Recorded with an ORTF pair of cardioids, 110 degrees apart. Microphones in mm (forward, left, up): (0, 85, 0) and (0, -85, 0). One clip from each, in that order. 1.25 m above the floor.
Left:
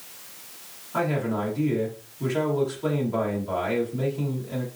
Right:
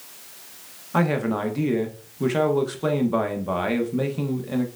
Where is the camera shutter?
I don't hear a camera shutter.